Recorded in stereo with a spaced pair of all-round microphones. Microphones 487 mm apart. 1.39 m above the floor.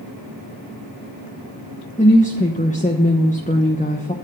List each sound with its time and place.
2.0 s a woman speaking: 15° left (ahead or behind), 1.2 m